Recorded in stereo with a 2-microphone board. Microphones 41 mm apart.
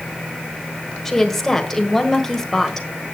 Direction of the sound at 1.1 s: 10° left (ahead or behind).